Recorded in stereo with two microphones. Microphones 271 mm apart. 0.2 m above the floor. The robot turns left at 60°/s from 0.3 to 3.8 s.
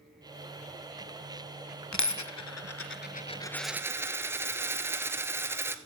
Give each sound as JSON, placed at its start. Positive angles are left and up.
{"t": 1.9, "sound": "a dropped coin", "azimuth_deg": 105, "distance_m": 0.6}